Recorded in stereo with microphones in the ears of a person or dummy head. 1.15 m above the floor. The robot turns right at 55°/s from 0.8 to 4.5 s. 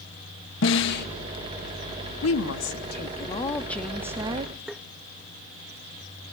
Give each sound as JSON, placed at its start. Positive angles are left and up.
{"t": 0.6, "sound": "a snare drum", "side_deg": 60, "distance_m": 1.7}
{"t": 2.2, "sound": "a woman speaking", "azimuth_deg": 95, "distance_m": 1.6}
{"t": 4.7, "sound": "tapping", "side_deg": -5, "distance_m": 0.7}